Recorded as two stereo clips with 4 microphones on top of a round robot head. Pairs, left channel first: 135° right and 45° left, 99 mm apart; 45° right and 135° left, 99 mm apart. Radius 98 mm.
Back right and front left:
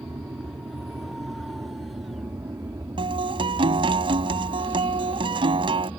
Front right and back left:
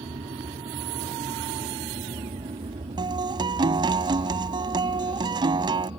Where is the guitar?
85° left.